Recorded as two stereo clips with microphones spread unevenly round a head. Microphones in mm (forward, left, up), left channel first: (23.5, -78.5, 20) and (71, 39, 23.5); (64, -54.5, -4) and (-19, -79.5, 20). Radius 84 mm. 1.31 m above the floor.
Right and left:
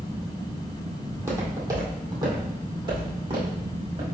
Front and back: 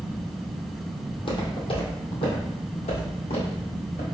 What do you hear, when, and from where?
1.1 s footsteps: 5° left, 1.8 m; by 4.0 s 30° left, 3 m